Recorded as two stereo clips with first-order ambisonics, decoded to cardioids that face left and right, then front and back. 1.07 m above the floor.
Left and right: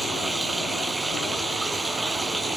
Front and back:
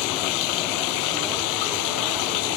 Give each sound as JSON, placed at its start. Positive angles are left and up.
{"t": 0.0, "sound": "running water", "azimuth_deg": -5}